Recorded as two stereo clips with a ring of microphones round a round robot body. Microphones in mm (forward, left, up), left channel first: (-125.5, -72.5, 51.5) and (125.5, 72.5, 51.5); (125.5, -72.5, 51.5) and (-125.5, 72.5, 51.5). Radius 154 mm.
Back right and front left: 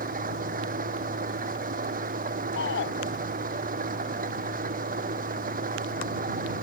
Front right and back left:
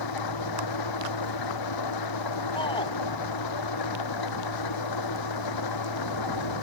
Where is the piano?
No piano in this recording.